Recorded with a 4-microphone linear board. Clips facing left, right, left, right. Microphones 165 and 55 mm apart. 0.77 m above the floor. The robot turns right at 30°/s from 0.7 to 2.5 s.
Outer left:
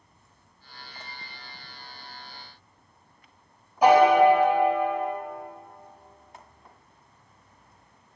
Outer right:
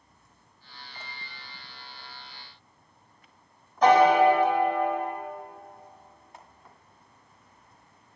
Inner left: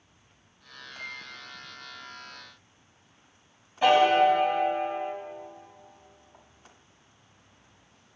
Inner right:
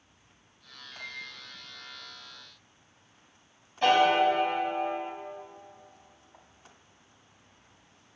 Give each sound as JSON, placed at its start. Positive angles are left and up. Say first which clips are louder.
{"t": 0.9, "sound": "a microwave", "louder": "outer left 1 dB, inner left 1 dB", "side_deg": 5, "distance_m": 2.0}
{"t": 3.8, "sound": "a piano", "louder": "outer left 2 dB, inner left 2 dB", "side_deg": 10, "distance_m": 0.7}